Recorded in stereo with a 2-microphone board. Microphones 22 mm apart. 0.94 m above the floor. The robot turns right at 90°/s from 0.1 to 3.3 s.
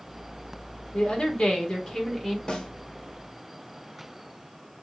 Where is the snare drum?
35° left (ahead or behind), 1.0 m; by 2.7 s 50° left (ahead or behind), 1.0 m.